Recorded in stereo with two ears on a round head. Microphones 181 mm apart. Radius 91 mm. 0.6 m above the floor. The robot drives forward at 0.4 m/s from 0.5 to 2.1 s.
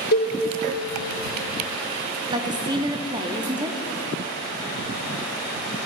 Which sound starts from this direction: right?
A woman speaking, at 2.3 s.